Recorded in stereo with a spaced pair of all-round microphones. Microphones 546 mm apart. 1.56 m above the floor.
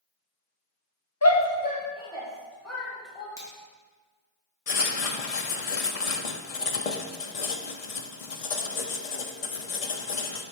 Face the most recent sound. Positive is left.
turn(degrees=80)